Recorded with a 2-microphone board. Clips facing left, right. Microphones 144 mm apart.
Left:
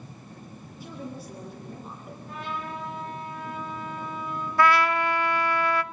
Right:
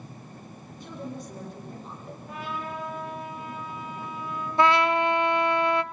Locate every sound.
0.8 s a woman speaking: 5° left (ahead or behind), 6.5 m
2.3 s a trumpet: 5° right (ahead or behind), 9 m
4.6 s a trumpet: 20° right (ahead or behind), 0.6 m